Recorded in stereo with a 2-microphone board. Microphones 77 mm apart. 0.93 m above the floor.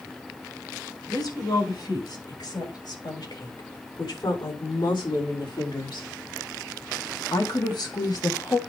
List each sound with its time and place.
1.1 s a woman speaking: 65° left (ahead or behind), 5 m; by 8.6 s 55° left (ahead or behind), 1.9 m